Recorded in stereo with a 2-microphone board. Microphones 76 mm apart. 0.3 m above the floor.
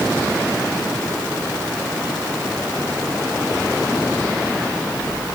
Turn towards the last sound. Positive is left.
No sound to turn to.